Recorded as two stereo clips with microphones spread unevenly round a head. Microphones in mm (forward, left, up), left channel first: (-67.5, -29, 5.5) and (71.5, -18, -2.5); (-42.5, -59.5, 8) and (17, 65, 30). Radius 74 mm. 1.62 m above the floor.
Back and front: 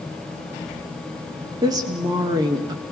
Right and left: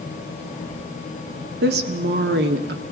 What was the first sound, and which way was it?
A woman speaking, 70° left.